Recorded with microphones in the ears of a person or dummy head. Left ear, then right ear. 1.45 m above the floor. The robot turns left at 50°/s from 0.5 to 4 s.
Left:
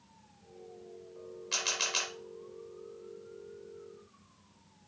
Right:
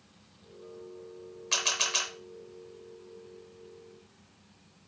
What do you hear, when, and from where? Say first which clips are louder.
1.5 s a camera shutter: right 4 dB; 15° right (ahead or behind), 0.9 m; by 2.1 s 5° left (ahead or behind), 0.9 m